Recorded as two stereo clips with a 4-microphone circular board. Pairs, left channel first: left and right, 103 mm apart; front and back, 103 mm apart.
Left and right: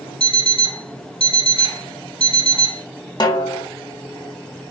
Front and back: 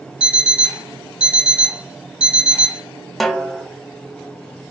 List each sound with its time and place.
0.2 s an alarm clock: 100° left, 1.2 m
3.2 s a snare drum: 85° left, 0.6 m